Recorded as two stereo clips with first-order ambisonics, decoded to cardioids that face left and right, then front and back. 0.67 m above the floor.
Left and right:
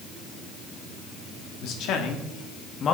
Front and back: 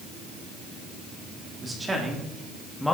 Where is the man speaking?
105° left, 1.7 m; by 2.9 s 80° left, 1.1 m.